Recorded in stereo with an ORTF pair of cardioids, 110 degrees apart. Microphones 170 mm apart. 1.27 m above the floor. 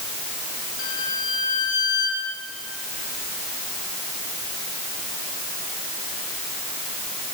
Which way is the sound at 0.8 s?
55° left.